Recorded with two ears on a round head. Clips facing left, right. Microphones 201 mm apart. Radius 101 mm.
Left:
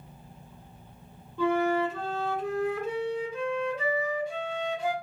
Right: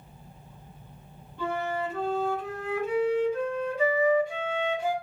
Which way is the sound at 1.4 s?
70° left (ahead or behind).